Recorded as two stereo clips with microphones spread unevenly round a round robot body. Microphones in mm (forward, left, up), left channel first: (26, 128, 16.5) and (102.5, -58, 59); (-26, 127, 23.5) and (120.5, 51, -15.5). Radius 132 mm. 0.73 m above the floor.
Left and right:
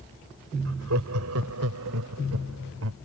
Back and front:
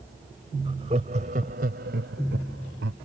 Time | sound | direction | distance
0.7 | laughter | 100° right | ?